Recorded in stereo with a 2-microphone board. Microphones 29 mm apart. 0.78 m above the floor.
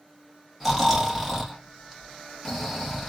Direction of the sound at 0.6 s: Centre (ahead or behind).